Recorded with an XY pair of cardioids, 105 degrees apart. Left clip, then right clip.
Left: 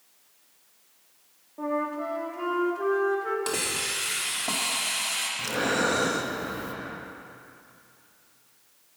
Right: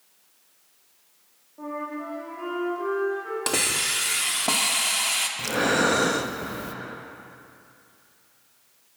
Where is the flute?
40° left, 2.5 m.